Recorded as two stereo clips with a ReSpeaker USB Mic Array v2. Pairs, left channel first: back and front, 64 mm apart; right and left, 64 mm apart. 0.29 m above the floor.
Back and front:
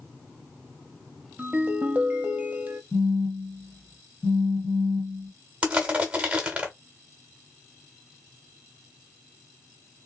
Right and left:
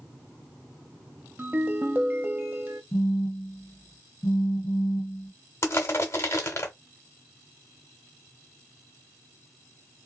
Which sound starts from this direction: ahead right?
Crushing, at 5.6 s.